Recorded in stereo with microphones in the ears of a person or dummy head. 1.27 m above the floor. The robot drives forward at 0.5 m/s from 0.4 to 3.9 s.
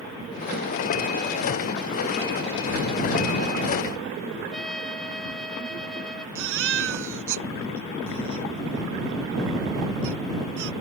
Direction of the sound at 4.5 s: Centre (ahead or behind).